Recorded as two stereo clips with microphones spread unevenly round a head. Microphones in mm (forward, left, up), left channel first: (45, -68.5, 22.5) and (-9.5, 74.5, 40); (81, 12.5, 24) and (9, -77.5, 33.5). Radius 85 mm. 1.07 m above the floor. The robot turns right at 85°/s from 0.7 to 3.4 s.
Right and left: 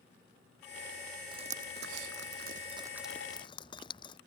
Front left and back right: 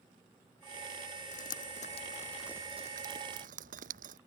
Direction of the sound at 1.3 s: 50° left.